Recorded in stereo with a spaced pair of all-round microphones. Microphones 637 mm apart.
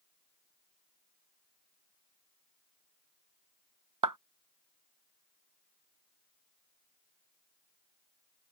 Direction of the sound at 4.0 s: 30° right (ahead or behind).